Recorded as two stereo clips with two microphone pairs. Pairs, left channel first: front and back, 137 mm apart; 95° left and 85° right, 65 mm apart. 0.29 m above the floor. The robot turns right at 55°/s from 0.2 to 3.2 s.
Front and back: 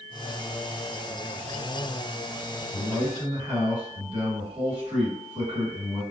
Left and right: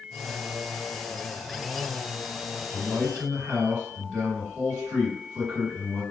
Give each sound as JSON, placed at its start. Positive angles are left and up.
{"t": 2.7, "sound": "a man speaking", "azimuth_deg": 180, "distance_m": 1.9}